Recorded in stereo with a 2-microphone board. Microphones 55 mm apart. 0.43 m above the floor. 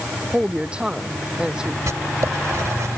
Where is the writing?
65° right (ahead or behind).